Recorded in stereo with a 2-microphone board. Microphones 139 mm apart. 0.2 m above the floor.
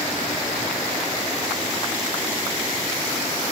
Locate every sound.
Only background noise.